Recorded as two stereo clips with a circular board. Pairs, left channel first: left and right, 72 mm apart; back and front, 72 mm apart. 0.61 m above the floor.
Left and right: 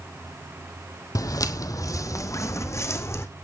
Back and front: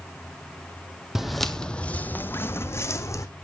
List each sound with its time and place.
1.1 s footsteps: 85° left, 0.9 m; by 3.3 s 140° left, 1.6 m